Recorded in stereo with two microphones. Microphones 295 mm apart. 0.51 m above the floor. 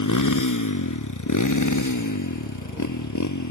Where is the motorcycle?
85° left; by 3.5 s 70° left (ahead or behind).